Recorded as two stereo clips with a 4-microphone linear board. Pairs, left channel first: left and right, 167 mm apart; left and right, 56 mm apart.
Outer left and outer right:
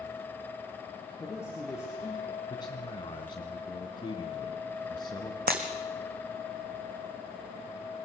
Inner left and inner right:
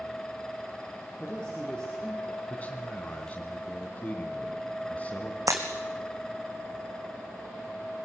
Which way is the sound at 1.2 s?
15° left (ahead or behind).